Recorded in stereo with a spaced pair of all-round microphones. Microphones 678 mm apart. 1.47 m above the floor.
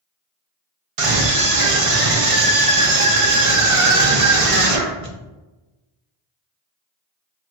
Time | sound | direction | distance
1.0 | a scream | 55° right (ahead or behind) | 0.9 m